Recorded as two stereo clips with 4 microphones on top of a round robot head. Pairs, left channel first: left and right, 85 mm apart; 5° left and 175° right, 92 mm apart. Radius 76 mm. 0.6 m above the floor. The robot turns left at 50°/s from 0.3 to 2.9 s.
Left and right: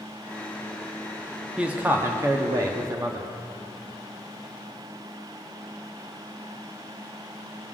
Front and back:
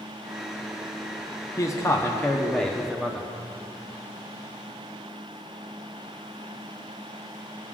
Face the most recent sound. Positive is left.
turn(degrees=-85)